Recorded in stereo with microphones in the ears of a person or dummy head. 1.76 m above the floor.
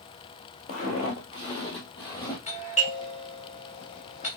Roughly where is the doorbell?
Left.